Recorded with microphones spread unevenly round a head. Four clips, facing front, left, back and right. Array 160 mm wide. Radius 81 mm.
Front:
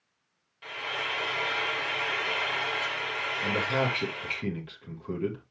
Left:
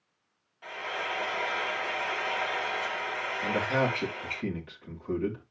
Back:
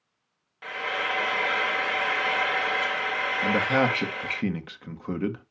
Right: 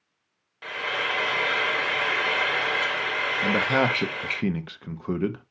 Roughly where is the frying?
Right.